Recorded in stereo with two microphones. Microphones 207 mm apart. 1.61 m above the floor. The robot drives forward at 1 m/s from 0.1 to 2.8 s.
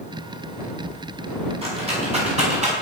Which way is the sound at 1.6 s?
30° right (ahead or behind).